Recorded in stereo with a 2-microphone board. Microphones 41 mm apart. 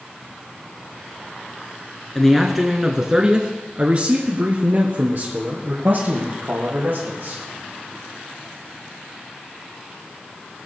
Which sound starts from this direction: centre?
A man speaking, at 2.1 s.